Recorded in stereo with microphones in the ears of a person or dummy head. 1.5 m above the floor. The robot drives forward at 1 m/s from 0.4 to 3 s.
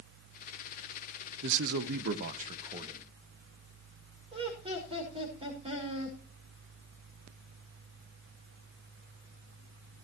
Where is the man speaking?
60° right (ahead or behind), 0.8 m; by 3.0 s 30° right (ahead or behind), 1.5 m.